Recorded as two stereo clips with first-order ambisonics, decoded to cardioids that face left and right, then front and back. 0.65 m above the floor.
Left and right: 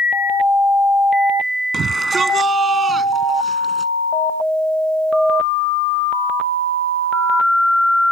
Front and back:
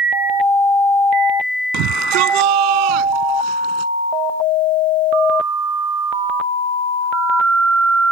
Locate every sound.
1.7 s a shout: 155° right; by 3.9 s 170° right